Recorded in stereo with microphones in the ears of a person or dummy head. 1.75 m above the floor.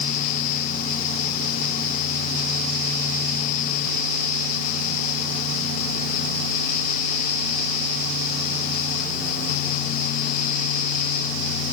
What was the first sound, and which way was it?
Only background noise.